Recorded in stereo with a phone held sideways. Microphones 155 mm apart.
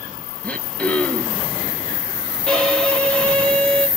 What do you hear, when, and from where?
0.4 s throat clearing: 10° left (ahead or behind), 0.6 m
2.5 s a violin: 5° left (ahead or behind), 1.3 m